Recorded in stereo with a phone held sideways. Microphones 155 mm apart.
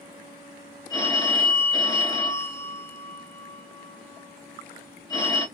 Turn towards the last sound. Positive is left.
turn(degrees=25)  # may be behind; listen again after turning